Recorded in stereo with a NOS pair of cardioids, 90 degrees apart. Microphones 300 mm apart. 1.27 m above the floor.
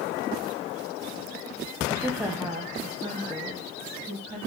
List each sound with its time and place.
1.9 s a woman speaking: straight ahead, 0.9 m; by 4.4 s 20° right, 2 m